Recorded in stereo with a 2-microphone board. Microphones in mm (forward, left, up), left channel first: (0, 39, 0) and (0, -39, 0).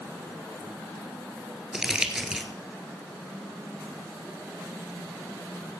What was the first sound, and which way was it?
Crumpling, 10° right (ahead or behind).